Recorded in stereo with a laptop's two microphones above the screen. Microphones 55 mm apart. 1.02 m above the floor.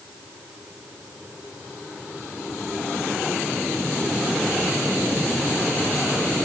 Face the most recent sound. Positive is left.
No sound to turn to.